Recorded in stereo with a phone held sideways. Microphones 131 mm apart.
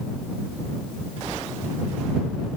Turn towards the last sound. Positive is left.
No sound to turn to.